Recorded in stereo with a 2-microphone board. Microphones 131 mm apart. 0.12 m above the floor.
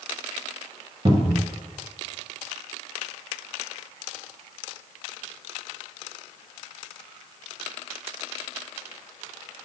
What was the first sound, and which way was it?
A cupboard door, 40° right (ahead or behind).